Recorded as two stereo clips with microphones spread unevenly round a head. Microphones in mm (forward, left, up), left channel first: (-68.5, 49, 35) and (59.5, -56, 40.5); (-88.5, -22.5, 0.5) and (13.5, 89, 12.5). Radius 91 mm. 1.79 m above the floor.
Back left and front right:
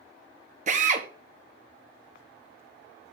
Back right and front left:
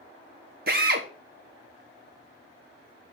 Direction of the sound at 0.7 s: 10° left.